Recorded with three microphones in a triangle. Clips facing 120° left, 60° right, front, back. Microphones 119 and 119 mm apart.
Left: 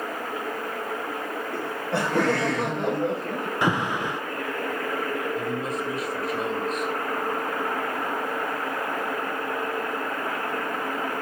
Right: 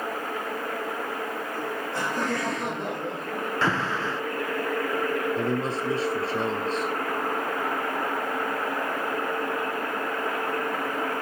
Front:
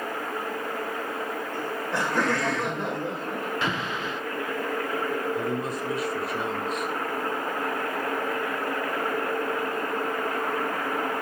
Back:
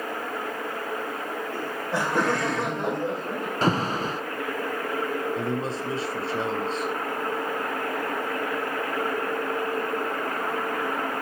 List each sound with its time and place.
1.5 s laughter: 105° left, 6.5 m; by 3.5 s 125° left, 5 m
3.6 s an alarm: 175° right, 1.1 m
5.4 s a man speaking: 120° right, 4 m